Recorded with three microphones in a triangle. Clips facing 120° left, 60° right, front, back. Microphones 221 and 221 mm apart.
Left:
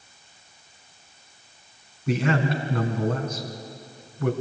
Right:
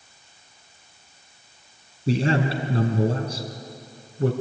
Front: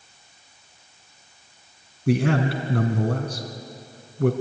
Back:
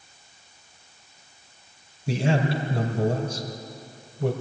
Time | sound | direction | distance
2.1 | a man speaking | 5° right | 2.5 m